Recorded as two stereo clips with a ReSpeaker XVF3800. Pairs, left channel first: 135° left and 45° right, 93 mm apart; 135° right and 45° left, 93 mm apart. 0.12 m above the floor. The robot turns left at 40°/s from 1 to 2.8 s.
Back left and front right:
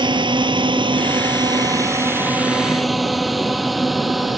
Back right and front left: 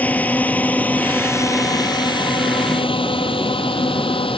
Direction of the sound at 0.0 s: 65° right.